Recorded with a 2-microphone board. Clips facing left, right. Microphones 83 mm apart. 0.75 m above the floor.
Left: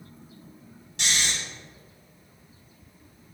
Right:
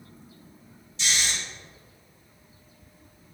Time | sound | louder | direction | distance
1.0 | snoring | left 1 dB | 75° left (ahead or behind) | 4 m